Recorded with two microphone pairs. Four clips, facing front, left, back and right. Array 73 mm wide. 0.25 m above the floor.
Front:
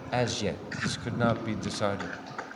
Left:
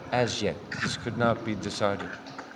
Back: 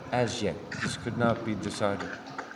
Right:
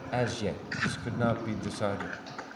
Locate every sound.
0.1 s a man speaking: 90° left, 1.3 m